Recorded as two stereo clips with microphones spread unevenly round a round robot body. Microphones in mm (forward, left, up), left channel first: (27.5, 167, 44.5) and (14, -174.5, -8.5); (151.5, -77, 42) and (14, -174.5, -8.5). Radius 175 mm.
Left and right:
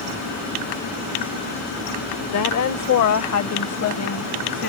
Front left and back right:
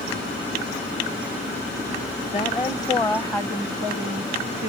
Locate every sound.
2.3 s a woman speaking: 105° left; by 4.7 s 140° left